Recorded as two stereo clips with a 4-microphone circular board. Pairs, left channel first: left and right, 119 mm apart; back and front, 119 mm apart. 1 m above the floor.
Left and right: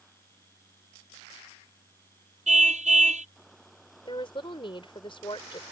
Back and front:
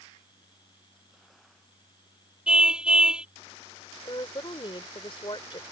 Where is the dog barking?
No dog barking in this recording.